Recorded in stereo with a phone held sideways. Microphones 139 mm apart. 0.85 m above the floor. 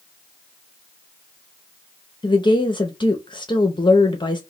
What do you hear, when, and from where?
2.2 s a woman speaking: 35° left (ahead or behind), 0.6 m